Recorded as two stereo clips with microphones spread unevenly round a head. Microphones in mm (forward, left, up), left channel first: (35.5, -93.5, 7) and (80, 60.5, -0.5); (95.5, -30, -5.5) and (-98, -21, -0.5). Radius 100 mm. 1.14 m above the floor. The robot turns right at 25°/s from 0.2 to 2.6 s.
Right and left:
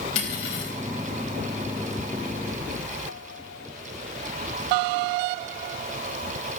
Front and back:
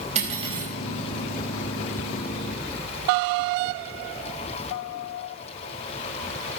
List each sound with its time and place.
0.1 s cutlery clinking: 125° right, 4.5 m; by 0.7 s 110° right, 4.5 m